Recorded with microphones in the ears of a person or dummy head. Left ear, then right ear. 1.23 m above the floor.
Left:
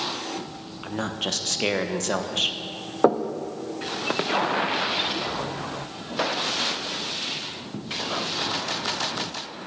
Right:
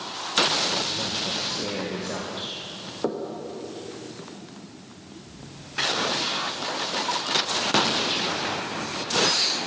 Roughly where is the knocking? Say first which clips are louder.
Left 9 dB; left.